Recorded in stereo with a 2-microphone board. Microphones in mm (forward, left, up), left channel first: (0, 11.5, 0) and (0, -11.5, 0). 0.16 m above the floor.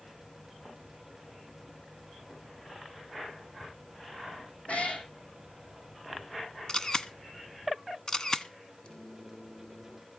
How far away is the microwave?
About 5.5 m.